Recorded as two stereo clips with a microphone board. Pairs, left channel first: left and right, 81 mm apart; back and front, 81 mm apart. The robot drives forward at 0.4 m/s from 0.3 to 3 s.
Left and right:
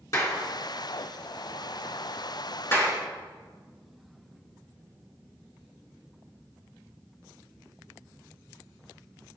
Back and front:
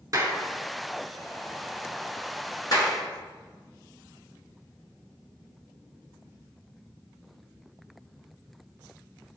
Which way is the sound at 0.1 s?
45° left.